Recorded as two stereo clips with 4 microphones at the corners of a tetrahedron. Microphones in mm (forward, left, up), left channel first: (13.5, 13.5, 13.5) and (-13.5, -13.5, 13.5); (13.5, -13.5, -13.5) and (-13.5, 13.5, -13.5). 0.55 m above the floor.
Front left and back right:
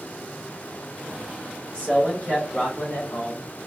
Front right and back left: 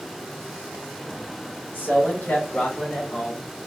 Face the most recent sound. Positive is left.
turn(degrees=35)